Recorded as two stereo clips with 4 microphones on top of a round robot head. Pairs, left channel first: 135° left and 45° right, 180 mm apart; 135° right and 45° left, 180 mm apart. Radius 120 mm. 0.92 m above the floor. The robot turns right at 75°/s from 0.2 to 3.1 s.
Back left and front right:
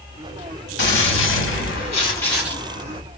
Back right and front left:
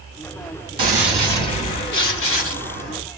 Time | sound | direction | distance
0.8 | a gunshot | 110° left | 3 m